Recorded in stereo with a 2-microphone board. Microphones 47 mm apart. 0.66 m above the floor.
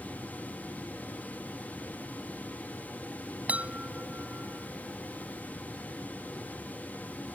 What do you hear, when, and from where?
3.5 s a chime: 30° right (ahead or behind)